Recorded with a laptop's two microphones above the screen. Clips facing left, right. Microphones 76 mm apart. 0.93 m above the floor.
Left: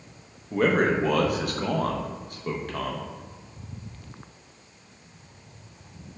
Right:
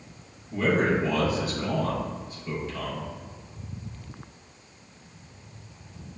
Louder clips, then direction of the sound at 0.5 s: Left 2 dB; 60° left (ahead or behind).